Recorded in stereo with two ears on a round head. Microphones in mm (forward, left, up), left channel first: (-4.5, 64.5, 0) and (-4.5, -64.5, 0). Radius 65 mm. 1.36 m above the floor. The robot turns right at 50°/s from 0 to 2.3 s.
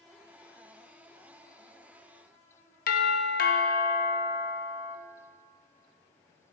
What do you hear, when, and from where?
2.9 s a doorbell: 65° left (ahead or behind), 1.0 m